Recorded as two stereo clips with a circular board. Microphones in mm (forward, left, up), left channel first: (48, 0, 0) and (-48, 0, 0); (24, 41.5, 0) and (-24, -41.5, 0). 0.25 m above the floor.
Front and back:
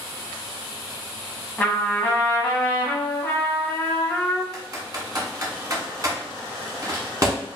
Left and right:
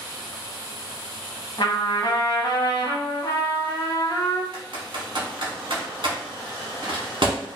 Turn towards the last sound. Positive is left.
turn(degrees=-130)